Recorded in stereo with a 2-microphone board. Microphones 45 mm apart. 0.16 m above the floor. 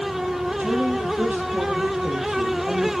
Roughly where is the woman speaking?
Right.